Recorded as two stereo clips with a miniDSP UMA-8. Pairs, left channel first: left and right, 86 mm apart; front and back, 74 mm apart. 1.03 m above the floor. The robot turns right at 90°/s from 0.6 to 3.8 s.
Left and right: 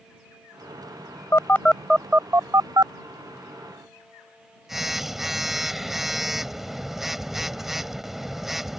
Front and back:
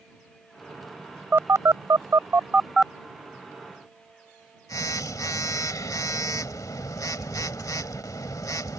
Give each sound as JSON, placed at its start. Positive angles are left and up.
{"t": 1.3, "sound": "a phone buzzing", "azimuth_deg": 130}